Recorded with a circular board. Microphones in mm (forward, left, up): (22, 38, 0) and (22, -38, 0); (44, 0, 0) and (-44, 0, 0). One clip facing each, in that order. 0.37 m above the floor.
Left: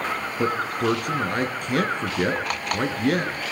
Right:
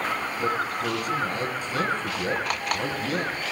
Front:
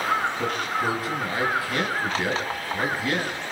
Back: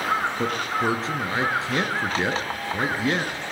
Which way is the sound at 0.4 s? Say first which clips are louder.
Left 4 dB, back 1 dB; 115° left.